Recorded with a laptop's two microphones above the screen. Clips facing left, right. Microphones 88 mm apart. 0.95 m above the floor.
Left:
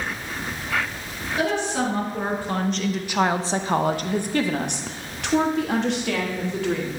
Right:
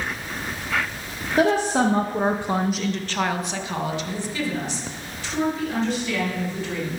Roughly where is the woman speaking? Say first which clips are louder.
Right 5 dB; right.